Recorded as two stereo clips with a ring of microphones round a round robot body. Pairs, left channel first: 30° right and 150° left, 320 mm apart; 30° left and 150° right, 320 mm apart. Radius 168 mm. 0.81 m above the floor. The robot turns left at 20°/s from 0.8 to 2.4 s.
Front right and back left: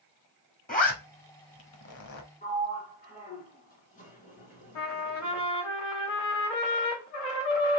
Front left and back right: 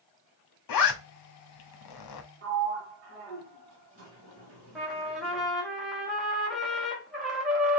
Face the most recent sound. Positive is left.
turn(degrees=-60)